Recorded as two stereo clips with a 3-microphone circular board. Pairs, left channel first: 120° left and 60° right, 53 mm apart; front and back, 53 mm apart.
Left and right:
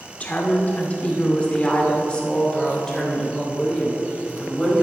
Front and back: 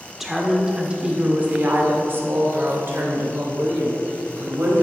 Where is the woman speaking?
100° left, 1.5 m; by 4.8 s 155° right, 3 m.